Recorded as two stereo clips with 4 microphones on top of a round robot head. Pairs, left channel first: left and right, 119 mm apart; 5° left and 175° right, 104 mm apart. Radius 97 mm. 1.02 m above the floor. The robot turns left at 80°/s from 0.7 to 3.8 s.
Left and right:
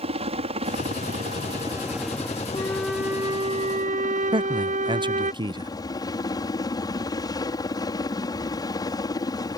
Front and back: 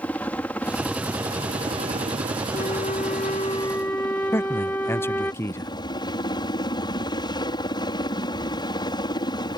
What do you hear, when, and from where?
0.0 s a helicopter: 75° right; by 9.6 s 40° left
2.5 s a flute: 25° left; by 5.3 s 75° right
4.3 s a man speaking: 60° right